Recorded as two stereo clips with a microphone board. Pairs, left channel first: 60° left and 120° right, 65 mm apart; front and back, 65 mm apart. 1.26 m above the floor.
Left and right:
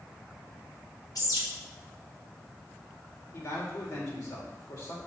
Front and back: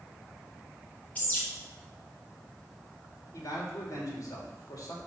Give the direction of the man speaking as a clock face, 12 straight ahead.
11 o'clock.